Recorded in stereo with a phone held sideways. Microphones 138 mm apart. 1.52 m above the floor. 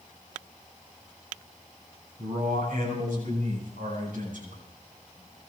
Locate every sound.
2.2 s a man speaking: 85° right, 9 m; by 4.6 s 80° right, 9 m